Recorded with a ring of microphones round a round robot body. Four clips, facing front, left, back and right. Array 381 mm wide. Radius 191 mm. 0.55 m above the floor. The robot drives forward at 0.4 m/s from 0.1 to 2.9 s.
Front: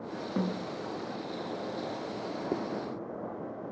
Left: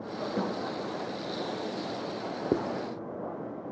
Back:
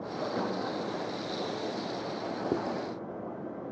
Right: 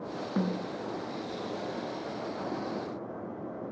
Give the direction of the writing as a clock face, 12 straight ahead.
9 o'clock.